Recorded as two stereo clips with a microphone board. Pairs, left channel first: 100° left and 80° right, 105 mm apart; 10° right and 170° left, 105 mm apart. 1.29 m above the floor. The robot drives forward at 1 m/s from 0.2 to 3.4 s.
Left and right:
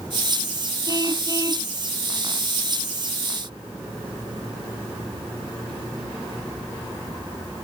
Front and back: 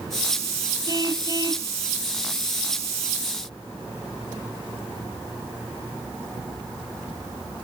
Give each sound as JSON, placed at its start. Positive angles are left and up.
{"t": 0.9, "sound": "a car horn", "azimuth_deg": -135}